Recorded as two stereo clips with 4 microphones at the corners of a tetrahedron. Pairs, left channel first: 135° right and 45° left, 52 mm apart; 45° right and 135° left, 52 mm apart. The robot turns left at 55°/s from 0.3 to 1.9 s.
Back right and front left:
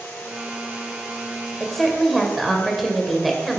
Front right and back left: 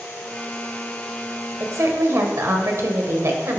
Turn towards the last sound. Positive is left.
turn(degrees=135)